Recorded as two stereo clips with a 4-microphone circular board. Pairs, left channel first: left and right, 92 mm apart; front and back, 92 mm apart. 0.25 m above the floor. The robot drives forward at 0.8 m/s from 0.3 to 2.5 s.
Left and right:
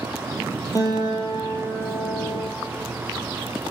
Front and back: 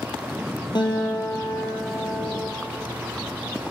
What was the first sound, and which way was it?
A guitar, 40° left.